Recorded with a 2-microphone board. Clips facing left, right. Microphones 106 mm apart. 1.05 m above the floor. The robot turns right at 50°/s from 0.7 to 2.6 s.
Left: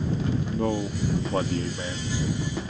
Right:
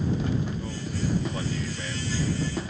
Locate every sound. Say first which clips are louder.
0.5 s a man speaking: left 7 dB; 95° left; by 2.1 s 165° left